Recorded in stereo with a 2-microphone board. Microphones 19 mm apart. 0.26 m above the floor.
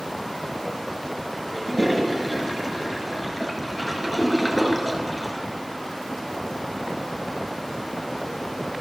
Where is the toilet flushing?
Centre (ahead or behind), 4 m.